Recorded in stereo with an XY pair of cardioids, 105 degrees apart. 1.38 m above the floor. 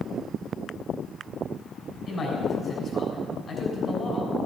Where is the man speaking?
35° left, 6 m.